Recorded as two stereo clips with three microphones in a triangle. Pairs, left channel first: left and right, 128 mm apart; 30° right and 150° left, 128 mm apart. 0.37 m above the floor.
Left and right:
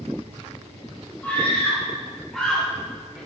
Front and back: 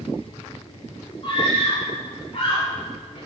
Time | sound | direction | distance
1.2 | a scream | 15° left | 5 m